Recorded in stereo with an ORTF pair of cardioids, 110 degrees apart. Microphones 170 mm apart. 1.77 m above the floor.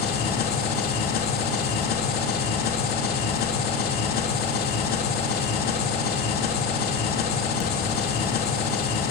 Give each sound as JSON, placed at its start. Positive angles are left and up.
{"t": 0.0, "sound": "an engine running", "azimuth_deg": 70, "distance_m": 3.0}